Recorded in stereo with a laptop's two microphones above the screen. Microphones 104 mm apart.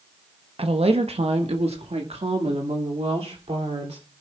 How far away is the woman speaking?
About 0.9 m.